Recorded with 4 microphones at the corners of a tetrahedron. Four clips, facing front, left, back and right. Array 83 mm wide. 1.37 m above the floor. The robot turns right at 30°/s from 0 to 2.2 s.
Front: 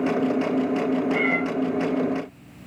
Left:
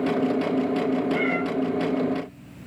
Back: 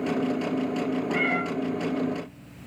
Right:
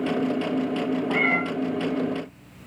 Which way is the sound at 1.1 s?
90° right.